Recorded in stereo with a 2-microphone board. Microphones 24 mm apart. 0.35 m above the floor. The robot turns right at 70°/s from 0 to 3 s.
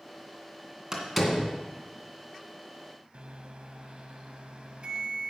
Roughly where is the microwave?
Right.